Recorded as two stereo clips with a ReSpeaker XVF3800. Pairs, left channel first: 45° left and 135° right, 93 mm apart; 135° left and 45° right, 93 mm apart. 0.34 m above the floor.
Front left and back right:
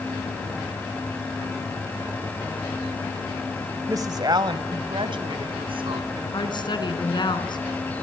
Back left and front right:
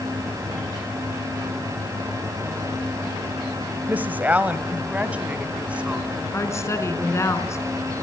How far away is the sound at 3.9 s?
About 1.4 m.